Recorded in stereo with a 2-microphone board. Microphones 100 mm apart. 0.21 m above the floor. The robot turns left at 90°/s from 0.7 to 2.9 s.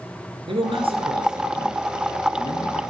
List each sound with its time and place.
0.5 s a man speaking: 75° right, 2.5 m; by 2.8 s 95° left, 2.5 m